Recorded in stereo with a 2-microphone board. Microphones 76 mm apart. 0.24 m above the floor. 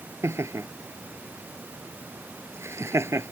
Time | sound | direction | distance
0.2 | laughter | 35° right (ahead or behind) | ?